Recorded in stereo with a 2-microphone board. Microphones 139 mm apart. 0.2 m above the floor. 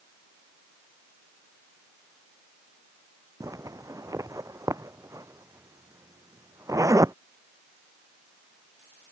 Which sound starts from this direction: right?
A zipper, at 3.4 s.